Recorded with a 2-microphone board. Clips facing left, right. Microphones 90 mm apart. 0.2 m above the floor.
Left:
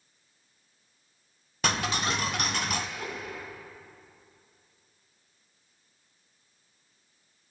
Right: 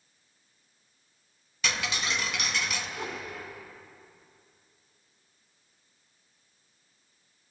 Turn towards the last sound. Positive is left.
turn(degrees=-25)  # may be behind; listen again after turning